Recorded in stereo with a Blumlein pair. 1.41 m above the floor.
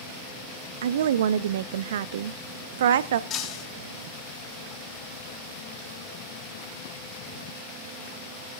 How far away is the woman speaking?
About 0.6 m.